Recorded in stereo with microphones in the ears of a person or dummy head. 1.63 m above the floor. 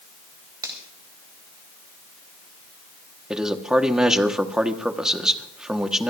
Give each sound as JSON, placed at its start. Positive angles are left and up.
{"t": 0.6, "sound": "a finger snap", "side_deg": -15, "distance_m": 3.5}
{"t": 3.3, "sound": "a man speaking", "side_deg": -5, "distance_m": 1.1}